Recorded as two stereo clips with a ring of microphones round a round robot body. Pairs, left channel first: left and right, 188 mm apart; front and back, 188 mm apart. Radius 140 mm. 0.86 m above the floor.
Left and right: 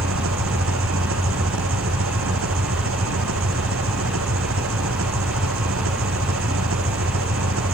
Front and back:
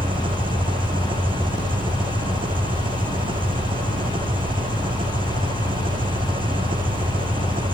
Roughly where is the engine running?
Right.